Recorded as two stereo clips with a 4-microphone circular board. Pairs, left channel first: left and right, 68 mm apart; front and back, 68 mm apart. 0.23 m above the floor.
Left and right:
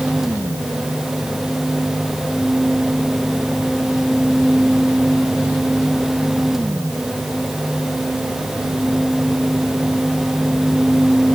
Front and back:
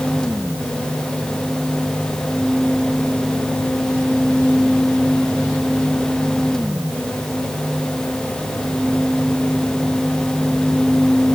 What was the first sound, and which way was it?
Only background noise.